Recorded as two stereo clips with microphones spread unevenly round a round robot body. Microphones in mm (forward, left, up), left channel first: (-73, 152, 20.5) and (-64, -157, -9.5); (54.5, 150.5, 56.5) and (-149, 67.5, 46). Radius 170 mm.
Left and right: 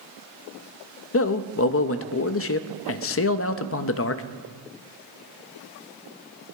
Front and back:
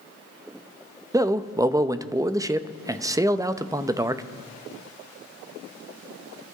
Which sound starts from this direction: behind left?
A man speaking, at 1.1 s.